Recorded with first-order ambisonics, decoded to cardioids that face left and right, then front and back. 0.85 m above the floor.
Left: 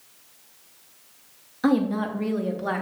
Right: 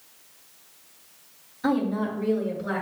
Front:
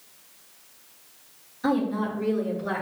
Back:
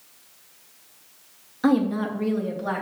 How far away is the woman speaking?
About 0.8 m.